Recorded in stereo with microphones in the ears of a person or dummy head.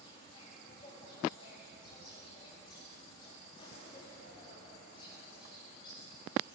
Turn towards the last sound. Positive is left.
turn(degrees=20)  # may be behind; listen again after turning